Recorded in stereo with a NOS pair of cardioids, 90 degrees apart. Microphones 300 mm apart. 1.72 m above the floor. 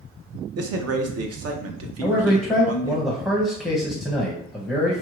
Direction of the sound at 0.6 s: 55° right.